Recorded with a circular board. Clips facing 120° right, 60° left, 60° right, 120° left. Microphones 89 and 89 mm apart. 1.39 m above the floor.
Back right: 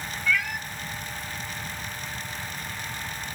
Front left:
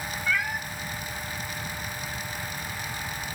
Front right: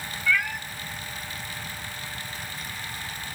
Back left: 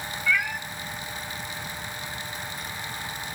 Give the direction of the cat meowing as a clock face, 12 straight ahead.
10 o'clock.